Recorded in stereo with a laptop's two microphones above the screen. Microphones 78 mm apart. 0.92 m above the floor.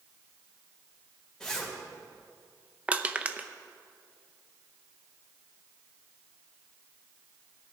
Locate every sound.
1.4 s a zipper: 10° left (ahead or behind), 3.5 m
2.9 s crushing: 20° right (ahead or behind), 0.6 m